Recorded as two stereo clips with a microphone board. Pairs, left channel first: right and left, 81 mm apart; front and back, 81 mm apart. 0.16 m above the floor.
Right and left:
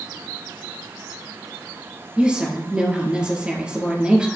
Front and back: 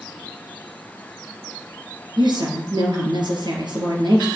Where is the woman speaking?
170° left, 3 m.